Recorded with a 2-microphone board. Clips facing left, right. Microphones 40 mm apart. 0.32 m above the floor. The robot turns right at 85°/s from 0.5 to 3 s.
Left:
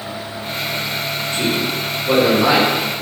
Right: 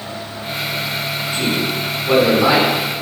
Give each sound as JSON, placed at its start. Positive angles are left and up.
{"t": 1.3, "sound": "a man speaking", "side_deg": -15, "distance_m": 1.3}